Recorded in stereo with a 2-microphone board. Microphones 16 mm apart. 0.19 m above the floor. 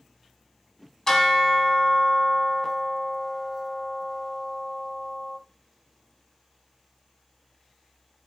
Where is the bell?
25° left (ahead or behind), 1.2 m.